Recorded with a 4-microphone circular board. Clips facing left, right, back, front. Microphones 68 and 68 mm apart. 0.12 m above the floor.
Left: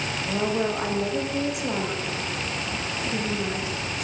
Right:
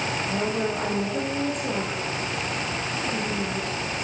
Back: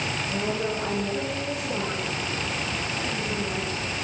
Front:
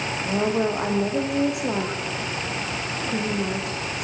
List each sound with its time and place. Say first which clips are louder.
0.2 s a woman speaking: left 3 dB, front 7 dB; 10° left, 8 m